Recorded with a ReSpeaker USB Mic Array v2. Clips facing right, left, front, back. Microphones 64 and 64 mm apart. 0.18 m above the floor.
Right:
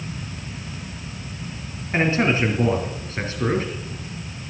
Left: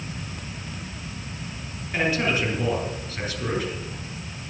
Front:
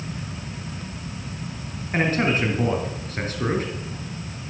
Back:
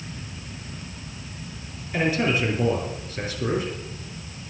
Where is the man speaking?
40° right, 3 m.